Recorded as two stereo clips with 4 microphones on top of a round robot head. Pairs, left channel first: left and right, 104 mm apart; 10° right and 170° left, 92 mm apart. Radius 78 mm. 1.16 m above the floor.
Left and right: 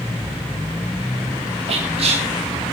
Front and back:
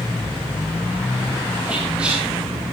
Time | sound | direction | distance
1.7 | whispering | 110° right | 1.4 m